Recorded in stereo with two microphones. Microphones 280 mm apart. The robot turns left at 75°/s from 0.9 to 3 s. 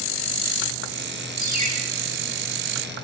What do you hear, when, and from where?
1.4 s a ringtone: 70° right (ahead or behind), 8.5 m; by 1.7 s 85° right, 8.5 m